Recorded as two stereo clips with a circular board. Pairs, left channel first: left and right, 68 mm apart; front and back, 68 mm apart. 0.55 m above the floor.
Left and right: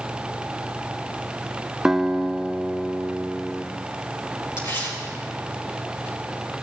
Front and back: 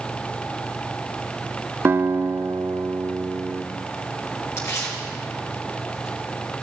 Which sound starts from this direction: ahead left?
Tearing paper, at 4.6 s.